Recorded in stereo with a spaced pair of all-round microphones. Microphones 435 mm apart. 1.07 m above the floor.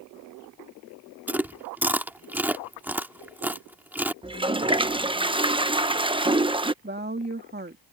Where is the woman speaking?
25° right (ahead or behind).